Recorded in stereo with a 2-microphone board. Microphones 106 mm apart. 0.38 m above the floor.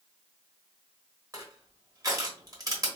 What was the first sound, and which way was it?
Crushing, 35° right (ahead or behind).